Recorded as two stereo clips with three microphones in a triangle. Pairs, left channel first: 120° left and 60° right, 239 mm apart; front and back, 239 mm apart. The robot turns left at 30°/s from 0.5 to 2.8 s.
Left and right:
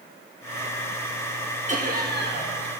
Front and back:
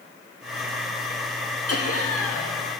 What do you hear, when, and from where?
1.7 s laughter: straight ahead, 1.2 m; by 2.6 s 30° right, 1.2 m